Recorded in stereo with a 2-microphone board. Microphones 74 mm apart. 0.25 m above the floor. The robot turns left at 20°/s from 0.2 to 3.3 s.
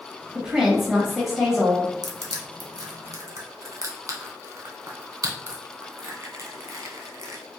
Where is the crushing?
65° right (ahead or behind), 0.7 m; by 7.4 s 50° right (ahead or behind), 0.7 m.